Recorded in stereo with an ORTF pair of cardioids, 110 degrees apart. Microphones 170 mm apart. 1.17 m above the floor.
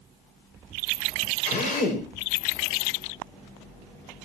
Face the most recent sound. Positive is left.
turn(degrees=60)